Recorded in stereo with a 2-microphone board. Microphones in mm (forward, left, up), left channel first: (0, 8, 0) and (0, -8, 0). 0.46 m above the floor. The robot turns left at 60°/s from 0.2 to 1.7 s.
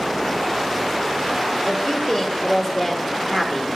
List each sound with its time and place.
1.6 s a woman speaking: 5° right (ahead or behind), 1.3 m